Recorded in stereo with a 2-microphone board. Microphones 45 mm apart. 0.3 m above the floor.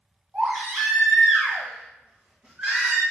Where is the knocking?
No knocking in this recording.